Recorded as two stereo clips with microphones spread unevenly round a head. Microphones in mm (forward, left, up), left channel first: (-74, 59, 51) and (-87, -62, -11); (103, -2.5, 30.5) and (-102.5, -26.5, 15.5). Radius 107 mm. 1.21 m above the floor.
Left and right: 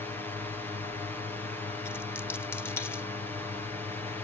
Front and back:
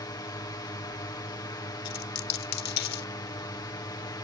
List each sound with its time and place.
0.0 s a drone: 40° right
1.9 s a dropped coin: 15° left